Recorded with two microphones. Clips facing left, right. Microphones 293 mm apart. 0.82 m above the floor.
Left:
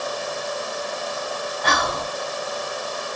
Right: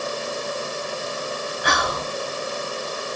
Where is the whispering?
15° right (ahead or behind), 0.7 m.